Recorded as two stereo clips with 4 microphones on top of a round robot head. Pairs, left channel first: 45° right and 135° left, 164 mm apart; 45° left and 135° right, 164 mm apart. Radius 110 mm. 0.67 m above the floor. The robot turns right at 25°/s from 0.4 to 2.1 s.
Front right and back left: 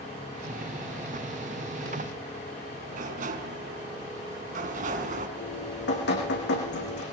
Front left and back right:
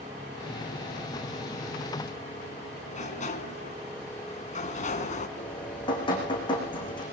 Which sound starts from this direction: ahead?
Dripping, at 5.4 s.